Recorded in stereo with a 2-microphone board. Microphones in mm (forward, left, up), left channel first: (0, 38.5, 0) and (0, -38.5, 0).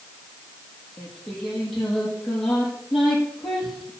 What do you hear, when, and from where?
1.0 s singing: 5° left (ahead or behind), 5 m